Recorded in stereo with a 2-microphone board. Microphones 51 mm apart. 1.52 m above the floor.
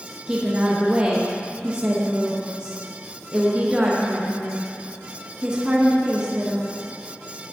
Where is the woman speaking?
15° right (ahead or behind), 0.7 m.